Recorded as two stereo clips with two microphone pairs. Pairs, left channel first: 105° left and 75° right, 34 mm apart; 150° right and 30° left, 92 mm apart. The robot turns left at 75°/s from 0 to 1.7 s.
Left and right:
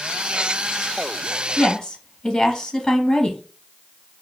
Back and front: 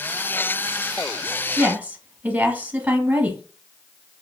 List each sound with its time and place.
1.6 s a woman speaking: 85° left, 1.0 m; by 3.4 s 75° left, 1.0 m